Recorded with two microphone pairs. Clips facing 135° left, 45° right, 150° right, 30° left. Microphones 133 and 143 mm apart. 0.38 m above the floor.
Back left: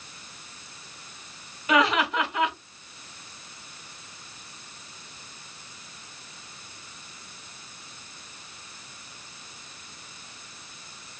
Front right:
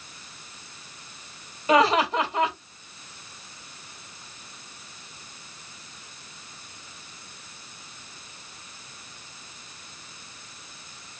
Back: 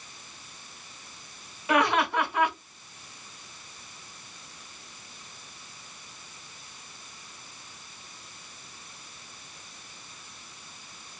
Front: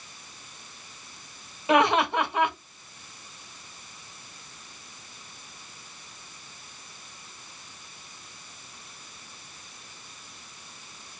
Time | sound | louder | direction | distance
1.7 | laughter | front right 3 dB, front 3 dB | 25° right | 0.9 m